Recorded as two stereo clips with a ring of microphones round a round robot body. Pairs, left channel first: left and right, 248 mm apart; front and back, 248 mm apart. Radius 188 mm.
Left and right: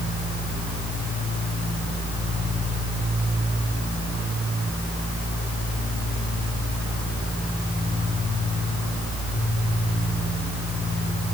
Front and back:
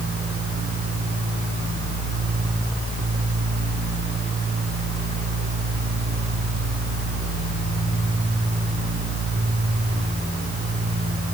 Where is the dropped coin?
No dropped coin in this recording.